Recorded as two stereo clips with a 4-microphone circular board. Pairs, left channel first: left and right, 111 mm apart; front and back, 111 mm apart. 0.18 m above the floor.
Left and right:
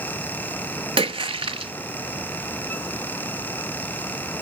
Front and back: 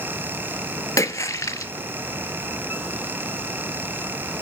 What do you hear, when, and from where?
1.0 s a splash: 60° right, 0.7 m